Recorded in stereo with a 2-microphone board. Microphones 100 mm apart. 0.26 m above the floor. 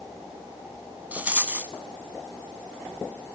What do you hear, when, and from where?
1.1 s a rattle: 15° right (ahead or behind), 0.9 m